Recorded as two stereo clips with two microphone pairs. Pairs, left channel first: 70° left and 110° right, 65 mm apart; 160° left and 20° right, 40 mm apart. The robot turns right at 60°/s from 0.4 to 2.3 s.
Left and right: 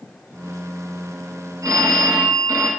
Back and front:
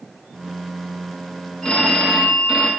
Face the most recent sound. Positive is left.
turn(degrees=-90)